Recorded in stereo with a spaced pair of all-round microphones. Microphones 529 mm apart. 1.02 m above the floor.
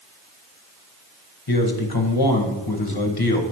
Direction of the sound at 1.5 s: 45° left (ahead or behind).